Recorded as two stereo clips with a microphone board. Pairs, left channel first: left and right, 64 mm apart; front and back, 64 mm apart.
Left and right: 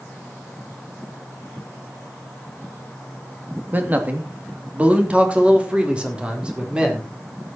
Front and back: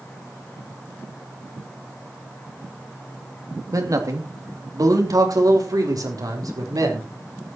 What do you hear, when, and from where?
3.7 s a man speaking: 150° right, 2.5 m; by 7.1 s 165° right, 5 m